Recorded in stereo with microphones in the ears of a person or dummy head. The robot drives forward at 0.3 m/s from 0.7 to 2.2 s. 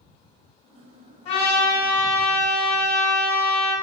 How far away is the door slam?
I don't hear a door slam.